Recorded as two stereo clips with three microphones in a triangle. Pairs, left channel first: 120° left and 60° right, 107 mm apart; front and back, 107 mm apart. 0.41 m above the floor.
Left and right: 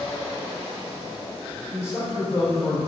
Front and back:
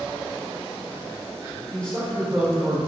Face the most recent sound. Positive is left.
turn(degrees=125)